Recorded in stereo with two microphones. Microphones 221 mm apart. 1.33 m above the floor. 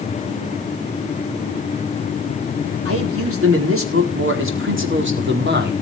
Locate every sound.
2.9 s a man speaking: 85° right, 4.5 m; by 5.7 s 50° right (ahead or behind), 4 m